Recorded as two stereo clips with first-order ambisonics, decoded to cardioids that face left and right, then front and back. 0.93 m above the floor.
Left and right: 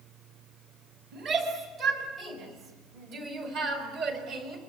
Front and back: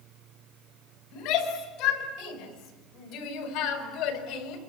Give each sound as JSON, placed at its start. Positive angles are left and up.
{"t": 1.1, "sound": "a shout", "azimuth_deg": -40, "distance_m": 7.5}